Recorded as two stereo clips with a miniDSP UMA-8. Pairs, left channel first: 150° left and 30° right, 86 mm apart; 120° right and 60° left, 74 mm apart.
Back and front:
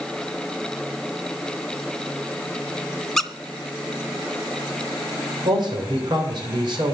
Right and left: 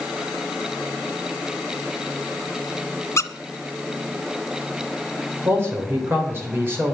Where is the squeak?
125° right, 0.9 m.